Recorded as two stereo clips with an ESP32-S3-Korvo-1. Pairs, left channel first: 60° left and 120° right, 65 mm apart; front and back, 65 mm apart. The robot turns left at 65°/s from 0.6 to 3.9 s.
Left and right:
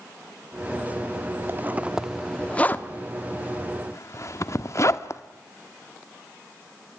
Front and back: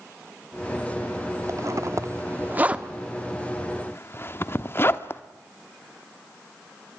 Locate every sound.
1.5 s a zipper: 165° right, 1.0 m; by 5.2 s 40° left, 1.0 m